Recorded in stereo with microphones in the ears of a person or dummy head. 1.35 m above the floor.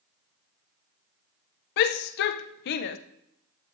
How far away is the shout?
About 0.6 m.